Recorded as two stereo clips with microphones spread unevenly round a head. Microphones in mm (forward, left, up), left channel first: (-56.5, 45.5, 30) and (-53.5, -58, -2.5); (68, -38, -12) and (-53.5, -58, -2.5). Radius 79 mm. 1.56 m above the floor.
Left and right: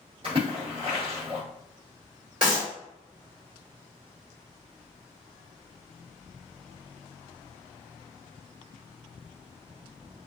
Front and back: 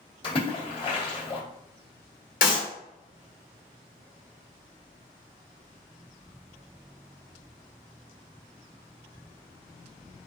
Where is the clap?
Straight ahead, 1.6 m.